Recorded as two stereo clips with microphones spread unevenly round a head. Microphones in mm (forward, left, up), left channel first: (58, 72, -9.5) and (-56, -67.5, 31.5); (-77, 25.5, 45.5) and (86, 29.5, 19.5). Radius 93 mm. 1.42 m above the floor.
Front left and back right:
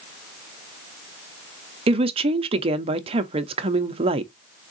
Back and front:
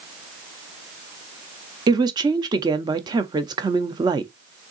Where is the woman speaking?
65° right, 0.6 m.